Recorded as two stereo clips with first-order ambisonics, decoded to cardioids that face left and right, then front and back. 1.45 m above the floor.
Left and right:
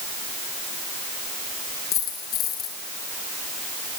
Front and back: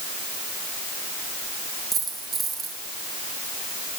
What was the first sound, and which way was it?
A dropped coin, 120° left.